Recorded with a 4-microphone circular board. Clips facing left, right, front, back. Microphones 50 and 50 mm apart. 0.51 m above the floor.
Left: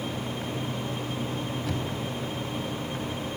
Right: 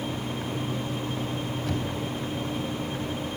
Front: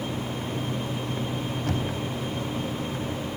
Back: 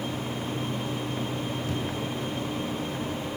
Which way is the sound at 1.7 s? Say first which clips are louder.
Right 1 dB, front 2 dB; straight ahead.